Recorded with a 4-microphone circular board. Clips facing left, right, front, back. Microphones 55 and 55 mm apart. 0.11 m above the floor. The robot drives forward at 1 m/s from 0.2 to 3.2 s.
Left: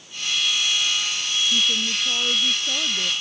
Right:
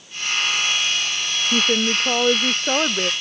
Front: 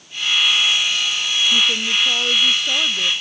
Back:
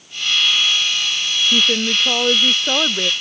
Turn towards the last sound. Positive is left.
turn(degrees=-130)